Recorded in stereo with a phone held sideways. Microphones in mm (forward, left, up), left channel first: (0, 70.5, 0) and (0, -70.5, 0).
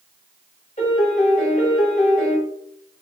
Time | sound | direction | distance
0.8 | a piano | 55° left (ahead or behind) | 0.9 m